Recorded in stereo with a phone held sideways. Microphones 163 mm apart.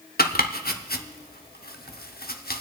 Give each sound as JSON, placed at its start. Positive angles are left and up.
{"t": 0.2, "sound": "chopping", "side_deg": 85, "distance_m": 0.6}